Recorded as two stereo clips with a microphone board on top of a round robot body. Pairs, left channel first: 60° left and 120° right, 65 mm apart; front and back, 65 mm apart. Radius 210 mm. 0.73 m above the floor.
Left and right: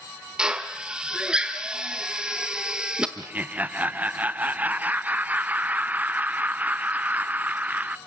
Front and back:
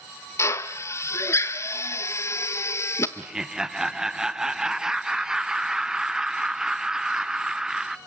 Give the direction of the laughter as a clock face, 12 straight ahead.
4 o'clock.